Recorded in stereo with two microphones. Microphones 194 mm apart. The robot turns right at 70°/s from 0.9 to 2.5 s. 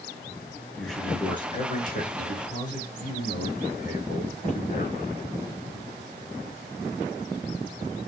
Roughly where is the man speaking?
Ahead.